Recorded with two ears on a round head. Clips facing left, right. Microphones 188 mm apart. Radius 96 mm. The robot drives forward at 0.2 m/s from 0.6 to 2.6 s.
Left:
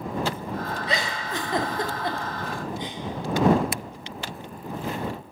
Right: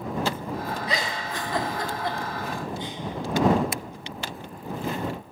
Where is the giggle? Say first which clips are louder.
Left 1 dB; 25° left (ahead or behind), 0.8 m; by 3.0 s 15° left (ahead or behind), 1.1 m.